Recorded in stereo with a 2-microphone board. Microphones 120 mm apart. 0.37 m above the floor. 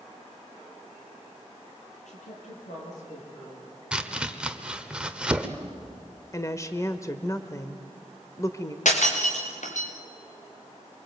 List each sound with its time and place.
2.1 s a woman speaking: 80° left, 8 m; by 3.7 s 70° left (ahead or behind), 10 m
3.9 s chopping: 10° right (ahead or behind), 1.3 m
6.3 s a woman speaking: 25° left (ahead or behind), 1.1 m
8.8 s breaking glass: 80° left, 4.5 m